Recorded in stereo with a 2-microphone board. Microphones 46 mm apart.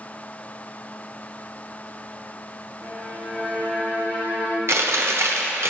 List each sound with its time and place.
2.8 s a violin: 35° left (ahead or behind), 1.7 m
4.7 s chewing: 60° right (ahead or behind), 1.0 m